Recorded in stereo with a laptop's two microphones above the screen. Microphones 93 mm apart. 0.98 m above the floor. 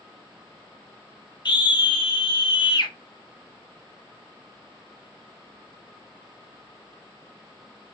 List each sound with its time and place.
1.4 s a scream: 55° left (ahead or behind), 0.9 m